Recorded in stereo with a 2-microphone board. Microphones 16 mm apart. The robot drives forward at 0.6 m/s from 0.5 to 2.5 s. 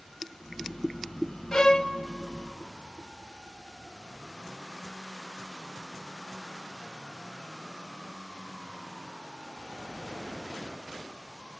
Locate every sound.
1.5 s a violin: 45° left (ahead or behind), 0.5 m